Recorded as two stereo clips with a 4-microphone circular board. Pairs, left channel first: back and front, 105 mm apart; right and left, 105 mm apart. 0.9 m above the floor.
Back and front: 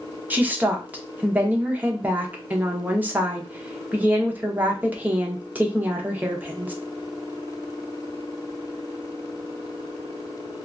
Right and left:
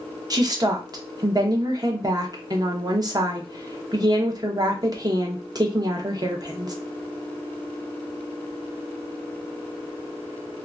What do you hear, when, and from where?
0.3 s a woman speaking: 65° left, 0.7 m